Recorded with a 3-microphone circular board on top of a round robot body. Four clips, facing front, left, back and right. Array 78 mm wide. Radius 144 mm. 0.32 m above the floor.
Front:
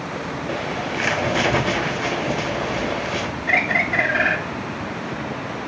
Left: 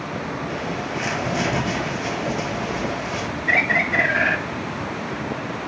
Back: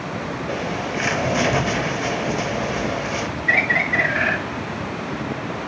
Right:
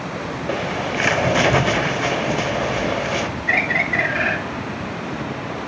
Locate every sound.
0.5 s a bird: 70° right, 0.6 m
3.5 s a bird: 25° left, 2 m